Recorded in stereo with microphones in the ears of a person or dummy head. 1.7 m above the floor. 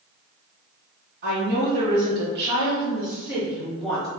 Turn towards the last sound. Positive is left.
turn(degrees=15)  # may be behind; listen again after turning